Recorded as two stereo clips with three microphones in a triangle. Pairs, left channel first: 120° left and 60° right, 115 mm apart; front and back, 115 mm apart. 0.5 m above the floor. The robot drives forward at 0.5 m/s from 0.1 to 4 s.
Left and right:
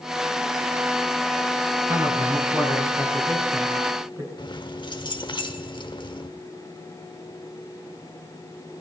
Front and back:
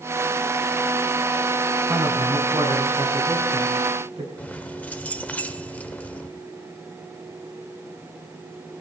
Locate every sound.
1.9 s a man speaking: 120° right, 4.5 m; by 4.3 s 130° right, 5 m
4.4 s keys jangling: 75° left, 0.8 m